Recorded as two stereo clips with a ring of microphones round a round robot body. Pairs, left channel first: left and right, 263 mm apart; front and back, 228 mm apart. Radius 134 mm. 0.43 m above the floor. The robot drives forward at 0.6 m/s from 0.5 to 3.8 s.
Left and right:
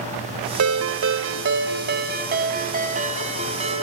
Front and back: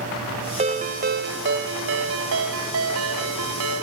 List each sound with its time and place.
0.6 s a ringtone: 115° right, 1.3 m; by 3.8 s 155° right, 2.5 m